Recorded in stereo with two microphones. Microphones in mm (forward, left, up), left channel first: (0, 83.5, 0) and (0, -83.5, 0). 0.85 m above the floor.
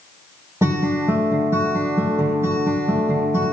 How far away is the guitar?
About 5 m.